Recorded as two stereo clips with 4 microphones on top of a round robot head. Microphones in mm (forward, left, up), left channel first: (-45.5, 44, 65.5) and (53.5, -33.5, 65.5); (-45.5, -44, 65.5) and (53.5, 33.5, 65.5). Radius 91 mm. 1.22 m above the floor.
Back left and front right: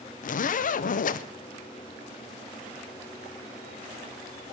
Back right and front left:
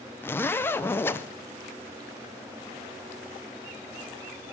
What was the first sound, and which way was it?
A zipper, 145° left.